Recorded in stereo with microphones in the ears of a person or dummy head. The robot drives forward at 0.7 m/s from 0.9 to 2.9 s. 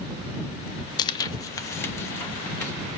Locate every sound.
1.0 s tearing paper: 20° left (ahead or behind), 0.5 m; by 2.7 s 10° left (ahead or behind), 1.4 m